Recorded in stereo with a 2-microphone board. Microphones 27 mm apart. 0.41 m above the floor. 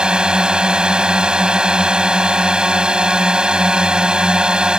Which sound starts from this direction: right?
A drone, at 0.0 s.